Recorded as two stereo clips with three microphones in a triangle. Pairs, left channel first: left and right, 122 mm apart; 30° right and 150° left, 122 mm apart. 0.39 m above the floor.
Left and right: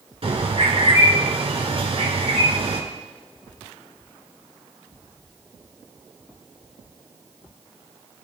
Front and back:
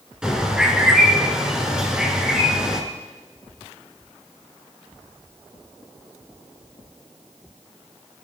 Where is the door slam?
No door slam in this recording.